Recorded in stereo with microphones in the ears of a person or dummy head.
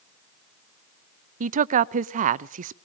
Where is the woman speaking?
45° right (ahead or behind), 0.5 m.